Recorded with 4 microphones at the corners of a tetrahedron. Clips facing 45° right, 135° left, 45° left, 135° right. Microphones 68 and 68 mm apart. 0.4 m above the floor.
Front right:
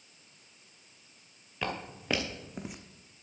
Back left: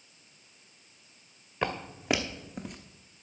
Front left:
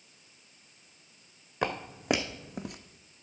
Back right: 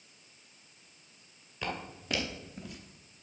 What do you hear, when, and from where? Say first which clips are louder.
1.6 s footsteps: back left 4 dB, front left 7 dB; 70° left, 1.4 m; by 2.8 s 35° left, 0.9 m